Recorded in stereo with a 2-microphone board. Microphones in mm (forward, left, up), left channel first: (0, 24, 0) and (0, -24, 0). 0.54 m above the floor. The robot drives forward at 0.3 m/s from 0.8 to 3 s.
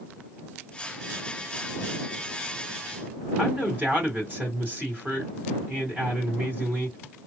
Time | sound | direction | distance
3.4 | a man speaking | 40° right (ahead or behind) | 2 m